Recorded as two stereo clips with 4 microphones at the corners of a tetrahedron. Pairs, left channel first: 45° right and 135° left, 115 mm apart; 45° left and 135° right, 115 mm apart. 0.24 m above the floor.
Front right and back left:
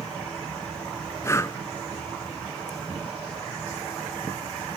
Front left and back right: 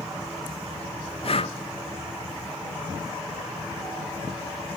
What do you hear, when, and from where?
1.2 s breathing: 15° left, 0.6 m